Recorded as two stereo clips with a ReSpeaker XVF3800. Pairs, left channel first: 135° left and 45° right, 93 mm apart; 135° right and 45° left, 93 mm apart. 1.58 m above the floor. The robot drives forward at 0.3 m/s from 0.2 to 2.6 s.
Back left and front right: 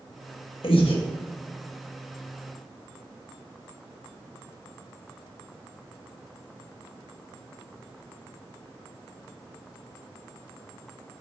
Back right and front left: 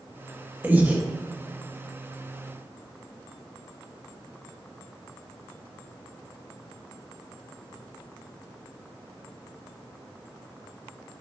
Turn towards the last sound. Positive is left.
turn(degrees=135)